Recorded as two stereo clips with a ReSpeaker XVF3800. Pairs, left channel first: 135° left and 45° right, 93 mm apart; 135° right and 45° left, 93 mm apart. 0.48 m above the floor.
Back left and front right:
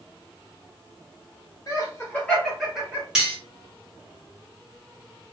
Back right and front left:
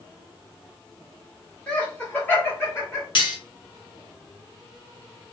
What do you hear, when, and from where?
1.7 s laughter: 155° left, 1.3 m; by 3.0 s 105° right, 1.2 m
3.1 s cutlery clinking: 130° right, 1.1 m